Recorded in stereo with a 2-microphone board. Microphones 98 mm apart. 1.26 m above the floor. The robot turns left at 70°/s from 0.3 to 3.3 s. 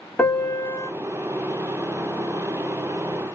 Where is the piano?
165° left, 0.9 m; by 0.9 s 120° left, 0.9 m.